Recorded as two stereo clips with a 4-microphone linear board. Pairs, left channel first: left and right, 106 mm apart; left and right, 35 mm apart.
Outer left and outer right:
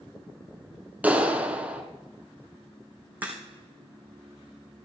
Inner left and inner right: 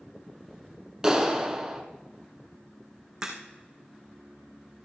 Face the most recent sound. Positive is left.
turn(degrees=-15)  # may be behind; listen again after turning